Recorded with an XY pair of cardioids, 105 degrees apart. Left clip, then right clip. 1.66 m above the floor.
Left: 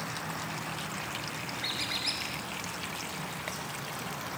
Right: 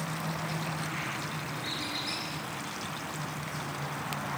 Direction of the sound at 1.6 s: 50° left.